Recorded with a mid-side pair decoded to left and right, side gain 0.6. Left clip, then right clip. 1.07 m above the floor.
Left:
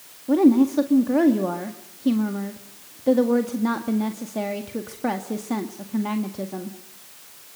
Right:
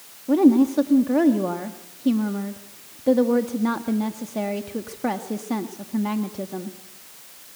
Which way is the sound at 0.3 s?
5° left.